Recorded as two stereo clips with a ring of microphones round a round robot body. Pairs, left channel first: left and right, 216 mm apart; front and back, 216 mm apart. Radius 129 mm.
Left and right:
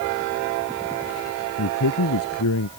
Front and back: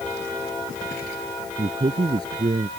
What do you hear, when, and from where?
1.6 s a man speaking: 105° left